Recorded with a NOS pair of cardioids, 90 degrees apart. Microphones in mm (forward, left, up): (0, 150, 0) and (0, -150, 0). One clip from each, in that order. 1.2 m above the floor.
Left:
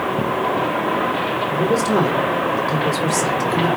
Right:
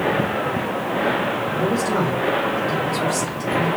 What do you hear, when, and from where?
1.5 s a man speaking: 35° left, 2 m